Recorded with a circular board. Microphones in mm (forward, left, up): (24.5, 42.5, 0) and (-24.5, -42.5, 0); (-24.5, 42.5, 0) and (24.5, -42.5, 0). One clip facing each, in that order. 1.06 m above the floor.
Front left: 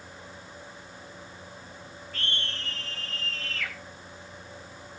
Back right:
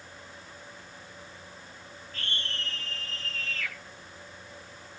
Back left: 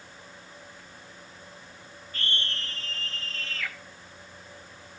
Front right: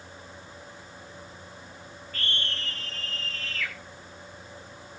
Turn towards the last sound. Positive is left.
turn(degrees=55)